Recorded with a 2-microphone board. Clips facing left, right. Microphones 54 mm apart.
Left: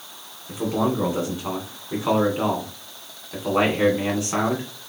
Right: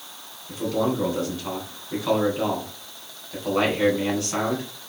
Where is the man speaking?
25° left (ahead or behind), 2 m.